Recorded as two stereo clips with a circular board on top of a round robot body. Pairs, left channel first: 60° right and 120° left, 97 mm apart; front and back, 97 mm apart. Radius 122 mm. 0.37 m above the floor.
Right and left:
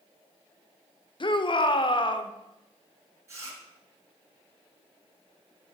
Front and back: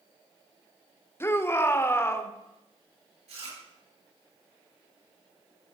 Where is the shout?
60° right, 1.5 m.